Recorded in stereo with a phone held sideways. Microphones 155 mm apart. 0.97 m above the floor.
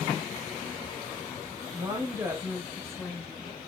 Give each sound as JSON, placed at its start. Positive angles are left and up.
{"t": 1.7, "sound": "a woman speaking", "side_deg": -30, "distance_m": 1.3}